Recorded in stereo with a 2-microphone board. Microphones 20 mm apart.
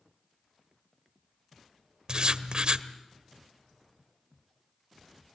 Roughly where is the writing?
Right.